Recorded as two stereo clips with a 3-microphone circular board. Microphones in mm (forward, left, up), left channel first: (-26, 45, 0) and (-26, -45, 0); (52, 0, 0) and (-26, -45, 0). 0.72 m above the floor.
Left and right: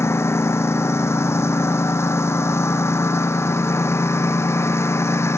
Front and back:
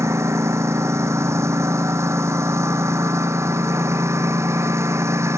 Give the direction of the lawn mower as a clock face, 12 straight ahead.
7 o'clock.